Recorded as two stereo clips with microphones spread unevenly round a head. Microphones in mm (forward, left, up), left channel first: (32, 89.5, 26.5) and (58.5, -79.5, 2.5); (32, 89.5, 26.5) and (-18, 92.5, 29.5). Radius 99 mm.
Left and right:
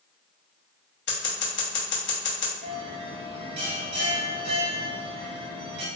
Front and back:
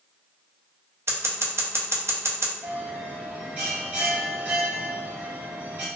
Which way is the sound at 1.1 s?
135° left.